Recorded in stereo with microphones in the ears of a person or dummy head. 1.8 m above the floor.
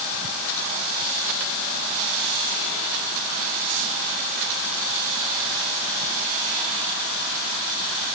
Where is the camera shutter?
I don't hear a camera shutter.